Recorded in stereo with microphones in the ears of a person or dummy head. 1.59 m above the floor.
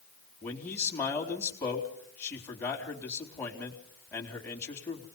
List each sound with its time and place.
0.4 s a man speaking: 10° left (ahead or behind), 4 m